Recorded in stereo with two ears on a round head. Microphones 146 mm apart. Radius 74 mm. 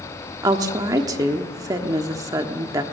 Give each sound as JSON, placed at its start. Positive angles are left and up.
{"t": 0.4, "sound": "a woman speaking", "side_deg": -20, "distance_m": 1.2}